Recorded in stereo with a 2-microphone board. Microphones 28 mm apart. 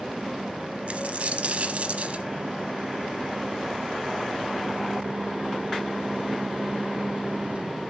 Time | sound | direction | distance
0.9 | a dropped coin | 55° right (ahead or behind) | 0.9 m